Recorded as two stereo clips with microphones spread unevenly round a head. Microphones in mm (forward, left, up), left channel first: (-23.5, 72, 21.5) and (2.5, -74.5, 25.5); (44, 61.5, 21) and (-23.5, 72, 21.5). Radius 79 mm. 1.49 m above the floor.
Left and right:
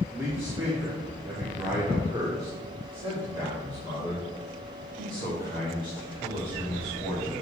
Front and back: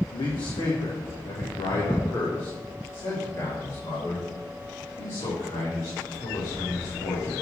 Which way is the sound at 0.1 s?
5° right.